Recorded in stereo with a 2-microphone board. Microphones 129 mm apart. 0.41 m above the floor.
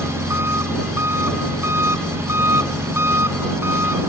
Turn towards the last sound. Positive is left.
turn(degrees=-20)  # may be behind; listen again after turning